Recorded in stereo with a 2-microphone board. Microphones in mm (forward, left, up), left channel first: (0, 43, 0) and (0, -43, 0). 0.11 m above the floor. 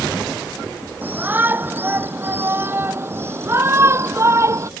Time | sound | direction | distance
1.0 | a shout | 20° right (ahead or behind) | ?